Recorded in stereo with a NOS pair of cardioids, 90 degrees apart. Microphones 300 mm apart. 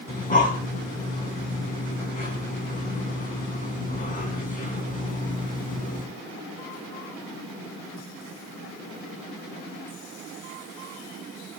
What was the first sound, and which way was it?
Breathing, 25° left.